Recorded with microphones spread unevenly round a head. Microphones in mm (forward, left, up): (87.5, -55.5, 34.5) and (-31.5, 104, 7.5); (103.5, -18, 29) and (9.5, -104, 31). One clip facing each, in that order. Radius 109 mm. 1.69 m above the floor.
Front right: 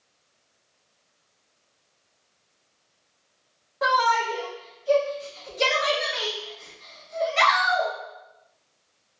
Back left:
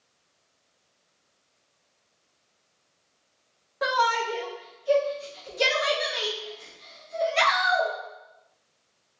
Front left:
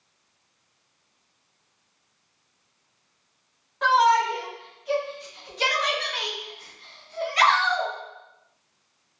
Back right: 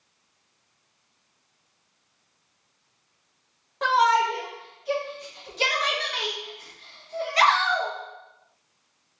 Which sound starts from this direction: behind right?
A shout, at 3.8 s.